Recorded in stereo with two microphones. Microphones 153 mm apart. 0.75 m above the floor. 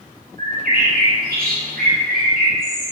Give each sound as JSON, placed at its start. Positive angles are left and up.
{"t": 0.4, "sound": "a bird", "side_deg": -75, "distance_m": 3.5}